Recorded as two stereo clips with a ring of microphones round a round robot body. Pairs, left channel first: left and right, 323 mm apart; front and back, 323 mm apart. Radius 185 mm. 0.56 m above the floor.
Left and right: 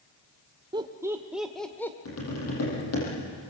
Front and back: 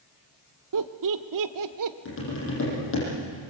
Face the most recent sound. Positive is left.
turn(degrees=50)